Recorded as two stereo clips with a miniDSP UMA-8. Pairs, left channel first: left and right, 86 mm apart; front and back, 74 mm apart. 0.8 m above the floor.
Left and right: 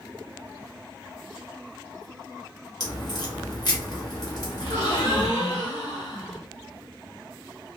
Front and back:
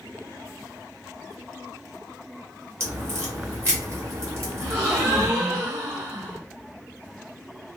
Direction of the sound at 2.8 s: 125° left.